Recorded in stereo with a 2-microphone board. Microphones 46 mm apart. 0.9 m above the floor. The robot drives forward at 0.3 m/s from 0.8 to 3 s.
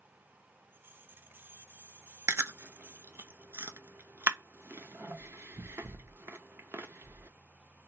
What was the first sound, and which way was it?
Chewing, 70° right (ahead or behind).